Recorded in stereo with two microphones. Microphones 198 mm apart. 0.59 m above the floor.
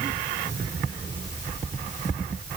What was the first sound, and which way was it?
Only background noise.